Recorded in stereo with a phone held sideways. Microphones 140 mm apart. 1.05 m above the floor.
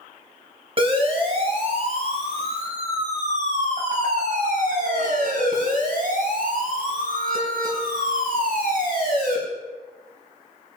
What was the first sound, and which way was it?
A siren, 35° right (ahead or behind).